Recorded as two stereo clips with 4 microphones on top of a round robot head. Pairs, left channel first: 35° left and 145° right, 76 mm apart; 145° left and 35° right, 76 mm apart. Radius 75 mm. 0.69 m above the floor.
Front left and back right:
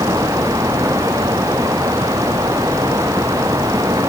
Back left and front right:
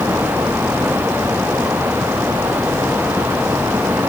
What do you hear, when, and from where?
Only background noise.